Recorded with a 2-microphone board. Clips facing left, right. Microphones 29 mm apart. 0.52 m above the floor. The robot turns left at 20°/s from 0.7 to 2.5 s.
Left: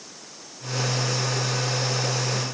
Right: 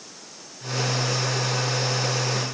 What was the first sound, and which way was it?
Only background noise.